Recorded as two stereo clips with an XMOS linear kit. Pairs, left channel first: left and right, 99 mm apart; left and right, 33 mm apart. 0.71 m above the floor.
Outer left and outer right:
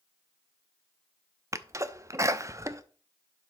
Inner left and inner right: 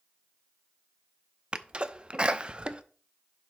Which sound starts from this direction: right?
A sneeze, at 1.5 s.